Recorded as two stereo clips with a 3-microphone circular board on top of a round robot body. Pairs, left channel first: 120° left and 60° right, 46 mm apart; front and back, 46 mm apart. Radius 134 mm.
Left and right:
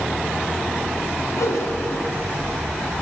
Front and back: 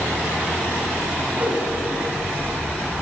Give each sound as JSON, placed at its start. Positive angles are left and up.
{"t": 1.3, "sound": "a whoosh", "azimuth_deg": 125, "distance_m": 4.0}